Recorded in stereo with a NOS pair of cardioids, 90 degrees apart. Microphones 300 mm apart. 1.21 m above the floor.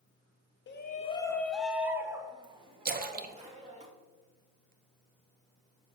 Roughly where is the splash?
Ahead right.